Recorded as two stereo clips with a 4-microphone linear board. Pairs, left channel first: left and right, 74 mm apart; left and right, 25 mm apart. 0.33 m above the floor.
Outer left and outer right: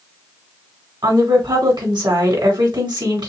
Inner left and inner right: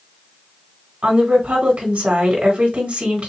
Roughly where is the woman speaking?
Right.